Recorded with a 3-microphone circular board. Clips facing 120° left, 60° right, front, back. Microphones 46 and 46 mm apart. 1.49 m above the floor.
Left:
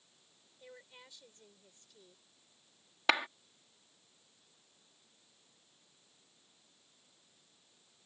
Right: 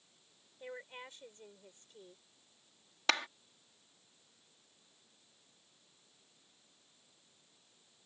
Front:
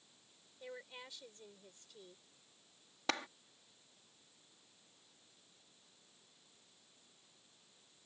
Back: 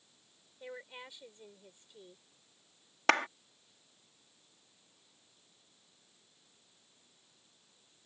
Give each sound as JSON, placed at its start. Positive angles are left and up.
{"t": 0.6, "sound": "a woman speaking", "azimuth_deg": -110}
{"t": 3.1, "sound": "a clap", "azimuth_deg": -165}